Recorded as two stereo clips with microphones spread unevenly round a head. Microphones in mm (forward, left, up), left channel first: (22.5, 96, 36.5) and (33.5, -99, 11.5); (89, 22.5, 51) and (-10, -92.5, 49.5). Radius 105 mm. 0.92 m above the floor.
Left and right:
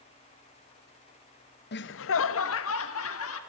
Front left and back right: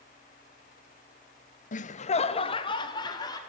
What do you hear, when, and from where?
1.7 s laughter: 65° left, 0.8 m; by 3.4 s 120° left, 2.5 m